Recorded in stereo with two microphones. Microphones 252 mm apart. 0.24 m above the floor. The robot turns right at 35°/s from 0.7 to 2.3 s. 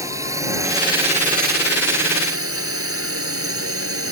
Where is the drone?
170° right; by 4.1 s 110° right.